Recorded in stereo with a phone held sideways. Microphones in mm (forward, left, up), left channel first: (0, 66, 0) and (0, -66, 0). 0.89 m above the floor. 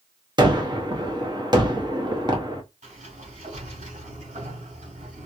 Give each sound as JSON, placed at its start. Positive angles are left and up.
{"t": 0.4, "sound": "a gunshot", "side_deg": -35, "distance_m": 1.0}
{"t": 2.8, "sound": "a sliding door", "side_deg": -70, "distance_m": 3.0}